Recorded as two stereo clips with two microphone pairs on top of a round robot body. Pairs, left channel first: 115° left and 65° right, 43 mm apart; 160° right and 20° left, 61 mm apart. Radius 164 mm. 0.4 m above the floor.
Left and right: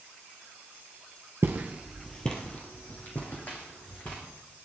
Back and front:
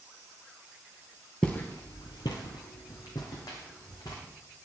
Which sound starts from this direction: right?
Footsteps, at 1.4 s.